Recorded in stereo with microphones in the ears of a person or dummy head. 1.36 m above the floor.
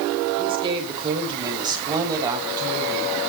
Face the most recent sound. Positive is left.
turn(degrees=-15)  # may be behind; listen again after turning